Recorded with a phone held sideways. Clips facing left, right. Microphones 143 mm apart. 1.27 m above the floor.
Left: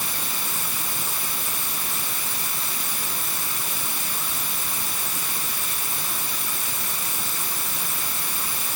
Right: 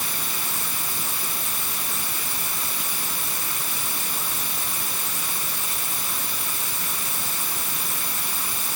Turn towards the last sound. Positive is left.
No sound to turn to.